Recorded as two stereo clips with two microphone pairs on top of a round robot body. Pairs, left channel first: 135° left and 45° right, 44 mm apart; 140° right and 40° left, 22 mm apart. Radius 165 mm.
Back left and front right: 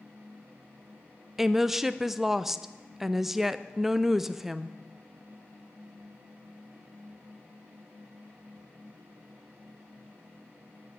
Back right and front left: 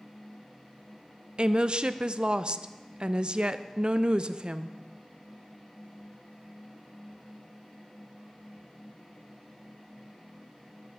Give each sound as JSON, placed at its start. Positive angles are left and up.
{"t": 1.4, "sound": "a woman speaking", "azimuth_deg": 10, "distance_m": 0.5}